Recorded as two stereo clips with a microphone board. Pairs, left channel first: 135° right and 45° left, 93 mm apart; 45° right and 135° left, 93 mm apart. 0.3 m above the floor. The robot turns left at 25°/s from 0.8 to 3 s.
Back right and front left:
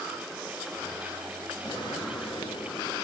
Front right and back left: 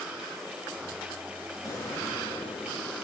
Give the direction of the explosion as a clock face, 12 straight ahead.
3 o'clock.